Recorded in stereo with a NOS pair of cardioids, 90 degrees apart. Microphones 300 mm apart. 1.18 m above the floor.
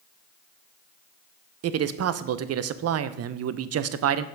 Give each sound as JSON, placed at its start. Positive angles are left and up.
{"t": 1.6, "sound": "a man speaking", "azimuth_deg": -55, "distance_m": 0.7}